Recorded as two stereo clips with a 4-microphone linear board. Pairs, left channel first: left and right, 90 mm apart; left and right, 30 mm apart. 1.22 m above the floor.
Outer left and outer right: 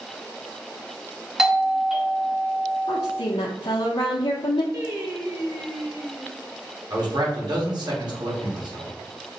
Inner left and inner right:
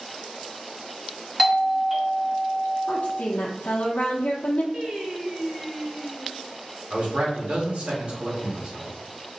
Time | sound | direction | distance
1.4 | a doorbell | 5° right (ahead or behind) | 0.7 m
2.9 | a woman speaking | 80° left | 0.7 m
4.7 | singing | 35° right (ahead or behind) | 1.2 m
6.9 | a man speaking | 55° right (ahead or behind) | 1.6 m